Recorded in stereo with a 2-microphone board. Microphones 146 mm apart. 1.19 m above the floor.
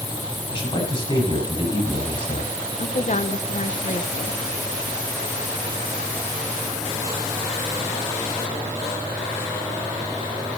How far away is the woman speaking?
About 1.0 m.